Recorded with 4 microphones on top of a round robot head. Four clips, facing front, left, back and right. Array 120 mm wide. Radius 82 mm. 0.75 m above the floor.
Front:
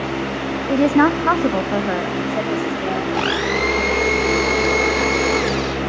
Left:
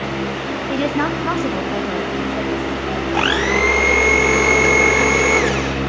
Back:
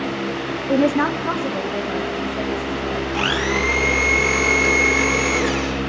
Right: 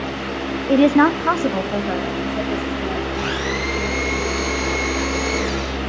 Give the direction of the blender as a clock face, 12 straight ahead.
10 o'clock.